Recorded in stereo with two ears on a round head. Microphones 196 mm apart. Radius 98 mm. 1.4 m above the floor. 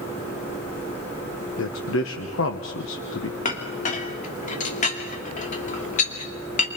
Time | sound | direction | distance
1.6 | a man speaking | 65° left (ahead or behind) | 1.3 m
3.5 | a clink | 40° left (ahead or behind) | 2.5 m